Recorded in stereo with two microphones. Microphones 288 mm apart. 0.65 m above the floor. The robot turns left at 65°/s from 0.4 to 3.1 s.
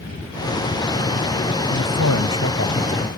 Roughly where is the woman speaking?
Left.